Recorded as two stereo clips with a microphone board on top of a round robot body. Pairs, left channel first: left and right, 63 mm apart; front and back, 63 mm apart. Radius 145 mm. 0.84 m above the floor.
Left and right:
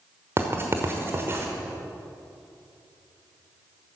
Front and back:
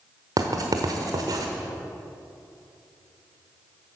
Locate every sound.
0.4 s writing: 145° right, 1.0 m